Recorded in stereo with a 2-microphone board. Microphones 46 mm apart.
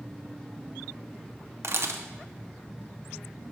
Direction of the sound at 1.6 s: 60° right (ahead or behind).